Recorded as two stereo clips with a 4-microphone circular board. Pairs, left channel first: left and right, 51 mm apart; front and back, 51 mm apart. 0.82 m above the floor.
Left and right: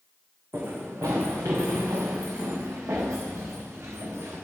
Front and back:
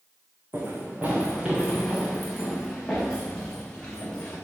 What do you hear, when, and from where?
0.5 s running footsteps: 130° right, 3 m; by 4.3 s 75° right, 7 m